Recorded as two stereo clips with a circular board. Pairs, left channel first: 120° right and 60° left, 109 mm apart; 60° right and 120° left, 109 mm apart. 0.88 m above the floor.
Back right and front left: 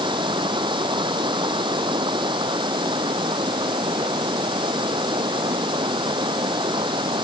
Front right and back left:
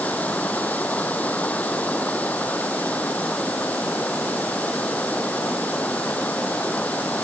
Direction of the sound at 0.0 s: 15° left.